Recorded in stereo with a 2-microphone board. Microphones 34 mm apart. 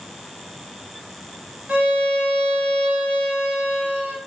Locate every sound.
1.7 s a violin: 50° right (ahead or behind), 2.5 m